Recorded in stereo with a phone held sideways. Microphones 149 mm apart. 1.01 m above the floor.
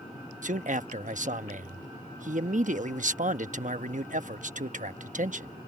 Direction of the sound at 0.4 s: 55° right (ahead or behind).